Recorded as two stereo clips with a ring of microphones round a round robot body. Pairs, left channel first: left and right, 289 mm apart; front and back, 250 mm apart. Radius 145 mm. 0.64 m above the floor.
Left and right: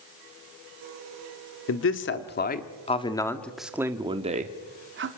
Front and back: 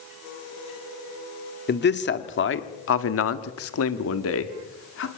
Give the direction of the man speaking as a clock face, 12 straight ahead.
10 o'clock.